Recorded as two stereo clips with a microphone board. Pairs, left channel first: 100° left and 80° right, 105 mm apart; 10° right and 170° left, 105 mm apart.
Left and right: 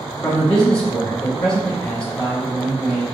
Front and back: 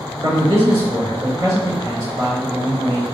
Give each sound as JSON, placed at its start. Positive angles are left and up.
{"t": 0.2, "sound": "a man speaking", "azimuth_deg": 180, "distance_m": 2.0}